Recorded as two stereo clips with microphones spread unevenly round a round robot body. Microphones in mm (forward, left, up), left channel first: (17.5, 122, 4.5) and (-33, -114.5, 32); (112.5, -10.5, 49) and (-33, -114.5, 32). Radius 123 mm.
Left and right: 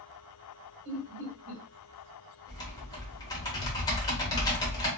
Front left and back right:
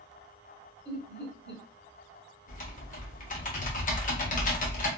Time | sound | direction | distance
0.8 | laughter | 105° right | 1.7 m
2.5 | typing on a keyboard | 20° left | 0.9 m